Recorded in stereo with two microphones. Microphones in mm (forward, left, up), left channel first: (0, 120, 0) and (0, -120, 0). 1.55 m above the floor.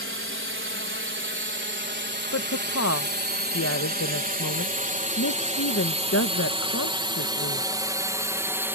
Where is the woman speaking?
75° left (ahead or behind).